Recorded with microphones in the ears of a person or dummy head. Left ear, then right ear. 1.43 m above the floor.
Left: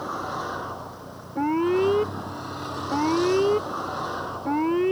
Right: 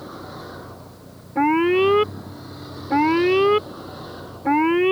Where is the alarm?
60° right (ahead or behind).